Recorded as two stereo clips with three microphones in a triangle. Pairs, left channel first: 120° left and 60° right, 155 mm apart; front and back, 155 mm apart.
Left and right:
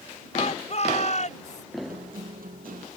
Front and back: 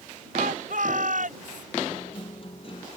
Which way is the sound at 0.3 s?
160° left.